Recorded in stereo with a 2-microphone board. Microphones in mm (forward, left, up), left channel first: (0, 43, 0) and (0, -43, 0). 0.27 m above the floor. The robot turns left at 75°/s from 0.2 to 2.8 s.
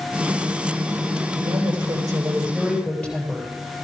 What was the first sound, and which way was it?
A woman speaking, 90° right.